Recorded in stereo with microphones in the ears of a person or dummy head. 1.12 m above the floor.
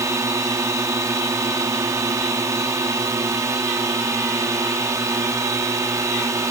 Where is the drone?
10° right (ahead or behind).